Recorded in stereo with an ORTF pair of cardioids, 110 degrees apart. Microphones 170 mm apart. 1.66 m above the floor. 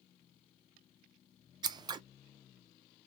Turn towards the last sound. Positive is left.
turn(degrees=-25)